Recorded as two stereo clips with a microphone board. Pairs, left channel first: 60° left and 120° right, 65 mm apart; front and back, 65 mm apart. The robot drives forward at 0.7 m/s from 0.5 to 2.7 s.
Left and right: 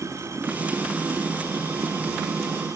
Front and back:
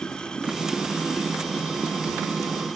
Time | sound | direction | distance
0.0 | running water | 80° right | ?